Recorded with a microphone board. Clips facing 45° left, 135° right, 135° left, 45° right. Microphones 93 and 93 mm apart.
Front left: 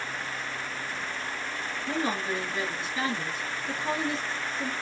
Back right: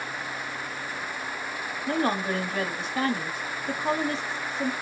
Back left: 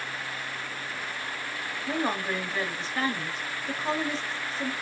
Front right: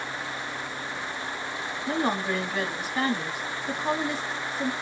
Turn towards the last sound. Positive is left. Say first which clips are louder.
# back right 4 dB, front right 2 dB
turn(degrees=-125)